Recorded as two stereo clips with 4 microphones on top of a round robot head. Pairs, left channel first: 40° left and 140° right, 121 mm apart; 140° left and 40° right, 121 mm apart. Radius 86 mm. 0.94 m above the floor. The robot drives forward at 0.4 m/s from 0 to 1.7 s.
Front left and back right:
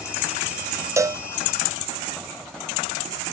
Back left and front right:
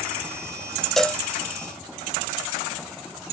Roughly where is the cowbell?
Behind right.